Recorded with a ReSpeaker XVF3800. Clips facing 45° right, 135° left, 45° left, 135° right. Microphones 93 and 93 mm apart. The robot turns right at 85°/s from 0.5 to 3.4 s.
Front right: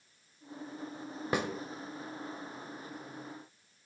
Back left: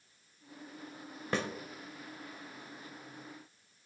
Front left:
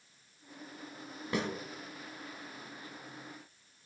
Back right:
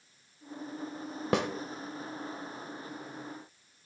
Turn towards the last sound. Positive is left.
turn(degrees=55)